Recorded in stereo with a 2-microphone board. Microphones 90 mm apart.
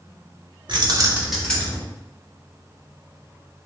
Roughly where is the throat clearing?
No throat clearing in this recording.